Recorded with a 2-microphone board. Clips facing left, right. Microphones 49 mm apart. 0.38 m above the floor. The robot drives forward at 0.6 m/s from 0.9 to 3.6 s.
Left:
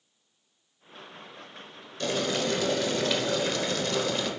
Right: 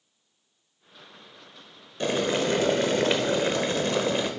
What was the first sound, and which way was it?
Boiling, 25° right (ahead or behind).